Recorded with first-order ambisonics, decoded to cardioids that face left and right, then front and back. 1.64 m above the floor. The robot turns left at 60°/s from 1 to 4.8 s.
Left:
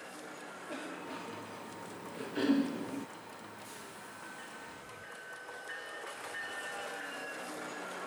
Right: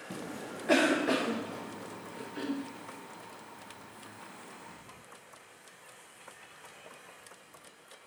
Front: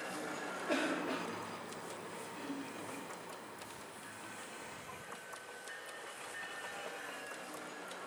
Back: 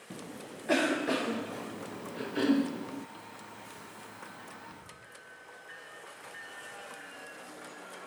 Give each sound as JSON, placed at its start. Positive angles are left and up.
{"t": 0.1, "sound": "a cough", "azimuth_deg": -115}